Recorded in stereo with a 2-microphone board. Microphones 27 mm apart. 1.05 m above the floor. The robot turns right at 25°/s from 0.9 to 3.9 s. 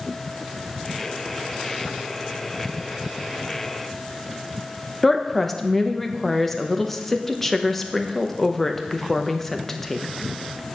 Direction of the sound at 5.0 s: 5° left (ahead or behind).